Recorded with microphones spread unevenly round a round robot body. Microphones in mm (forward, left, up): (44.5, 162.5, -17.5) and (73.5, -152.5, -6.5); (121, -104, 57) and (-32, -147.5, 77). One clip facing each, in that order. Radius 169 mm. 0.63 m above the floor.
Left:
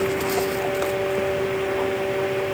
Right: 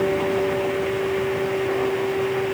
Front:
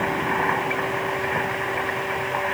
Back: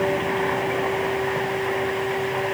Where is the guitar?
I don't hear a guitar.